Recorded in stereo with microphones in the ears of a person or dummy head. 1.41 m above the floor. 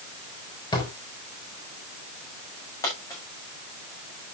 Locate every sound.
0.7 s a drawer: 25° left (ahead or behind), 4 m
2.8 s a dropped coin: 15° left (ahead or behind), 7.5 m